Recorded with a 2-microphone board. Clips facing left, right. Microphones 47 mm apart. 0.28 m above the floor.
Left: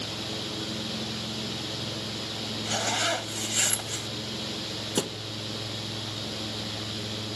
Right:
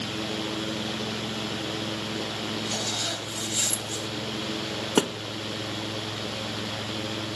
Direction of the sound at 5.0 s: 45° right (ahead or behind).